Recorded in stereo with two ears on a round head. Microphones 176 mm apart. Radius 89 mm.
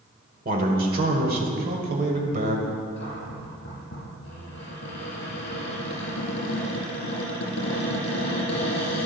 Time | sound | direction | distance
0.5 | a man speaking | 45° right (ahead or behind) | 1.6 m
3.0 | a cupboard door | 60° left (ahead or behind) | 4 m